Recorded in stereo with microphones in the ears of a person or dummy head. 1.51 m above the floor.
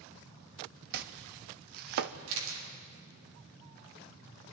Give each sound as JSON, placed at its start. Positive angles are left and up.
{"t": 0.9, "sound": "chopping", "side_deg": -50, "distance_m": 0.6}
{"t": 2.3, "sound": "a camera shutter", "side_deg": -75, "distance_m": 3.0}